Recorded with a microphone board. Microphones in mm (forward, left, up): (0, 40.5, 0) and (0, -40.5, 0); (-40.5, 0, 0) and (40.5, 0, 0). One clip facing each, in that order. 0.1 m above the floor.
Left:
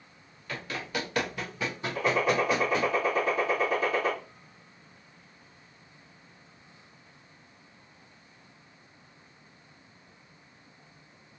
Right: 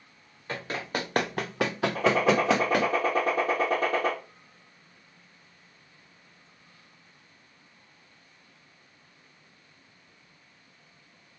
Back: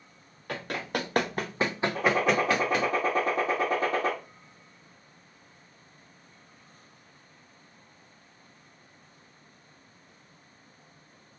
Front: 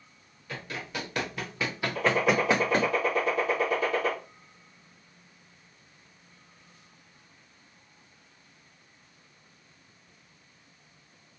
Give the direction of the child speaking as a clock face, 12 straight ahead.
I don't hear a child speaking.